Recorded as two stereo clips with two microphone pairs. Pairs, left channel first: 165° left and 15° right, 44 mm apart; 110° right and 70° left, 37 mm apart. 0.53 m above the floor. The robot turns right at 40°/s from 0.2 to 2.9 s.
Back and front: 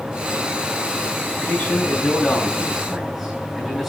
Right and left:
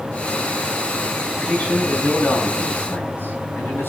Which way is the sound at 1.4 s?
170° right.